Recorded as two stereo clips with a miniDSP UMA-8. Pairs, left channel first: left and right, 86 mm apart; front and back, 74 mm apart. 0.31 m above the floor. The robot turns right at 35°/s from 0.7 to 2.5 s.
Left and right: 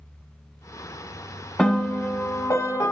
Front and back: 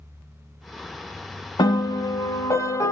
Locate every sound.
1.6 s a piano: 5° left, 0.8 m; by 2.9 s 35° left, 0.8 m